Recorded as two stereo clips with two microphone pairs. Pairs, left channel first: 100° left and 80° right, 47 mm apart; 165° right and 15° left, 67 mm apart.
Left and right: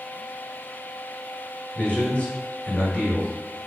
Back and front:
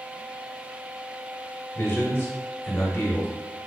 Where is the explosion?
No explosion in this recording.